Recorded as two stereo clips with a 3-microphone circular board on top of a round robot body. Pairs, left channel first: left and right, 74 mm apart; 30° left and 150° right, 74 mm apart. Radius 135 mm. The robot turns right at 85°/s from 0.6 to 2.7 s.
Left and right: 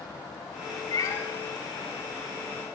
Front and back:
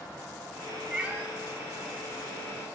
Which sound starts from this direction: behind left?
A cat meowing, at 0.9 s.